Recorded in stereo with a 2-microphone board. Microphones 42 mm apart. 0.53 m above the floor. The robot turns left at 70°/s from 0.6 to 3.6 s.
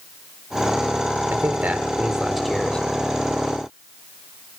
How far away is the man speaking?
About 1.3 m.